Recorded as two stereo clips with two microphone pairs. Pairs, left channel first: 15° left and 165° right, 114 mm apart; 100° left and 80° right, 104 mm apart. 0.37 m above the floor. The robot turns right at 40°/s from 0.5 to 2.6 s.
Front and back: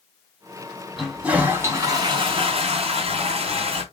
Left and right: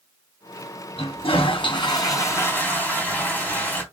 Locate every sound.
1.0 s a toilet flushing: 105° left, 3 m; by 3.8 s 170° left, 3 m